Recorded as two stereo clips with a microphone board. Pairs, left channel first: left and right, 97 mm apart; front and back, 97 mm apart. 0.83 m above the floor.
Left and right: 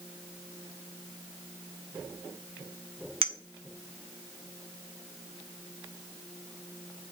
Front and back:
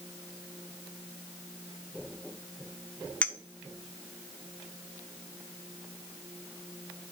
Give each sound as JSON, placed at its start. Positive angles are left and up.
{"t": 3.2, "sound": "a clink", "azimuth_deg": -75, "distance_m": 0.6}